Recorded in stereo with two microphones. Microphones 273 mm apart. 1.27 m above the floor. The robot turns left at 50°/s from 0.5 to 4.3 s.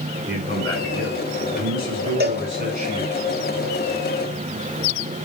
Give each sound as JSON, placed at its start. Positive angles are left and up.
{"t": 0.3, "sound": "a man speaking", "azimuth_deg": -40, "distance_m": 5.5}
{"t": 2.2, "sound": "a cowbell", "side_deg": -35, "distance_m": 1.4}